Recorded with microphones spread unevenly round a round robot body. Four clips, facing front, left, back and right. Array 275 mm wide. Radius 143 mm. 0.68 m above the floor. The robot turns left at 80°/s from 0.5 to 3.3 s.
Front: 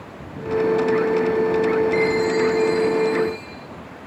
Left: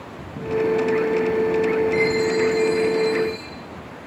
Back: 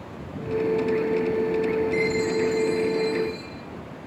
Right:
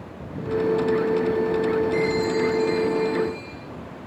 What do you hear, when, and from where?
1.9 s a chime: 150° right, 8 m; by 3.5 s 100° left, 8 m